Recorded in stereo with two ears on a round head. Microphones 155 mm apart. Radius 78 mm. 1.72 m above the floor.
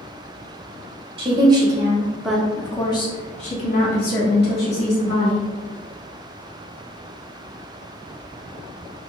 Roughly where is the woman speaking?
Right.